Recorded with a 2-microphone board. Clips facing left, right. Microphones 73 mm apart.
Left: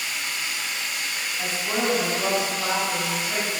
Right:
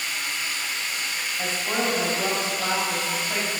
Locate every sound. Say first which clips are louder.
0.0 s running water: even; 10° left (ahead or behind), 1.4 m
1.4 s a woman speaking: even; 25° right (ahead or behind), 1.0 m